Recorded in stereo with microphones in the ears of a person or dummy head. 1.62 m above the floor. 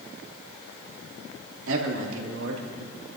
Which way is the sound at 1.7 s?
75° right (ahead or behind).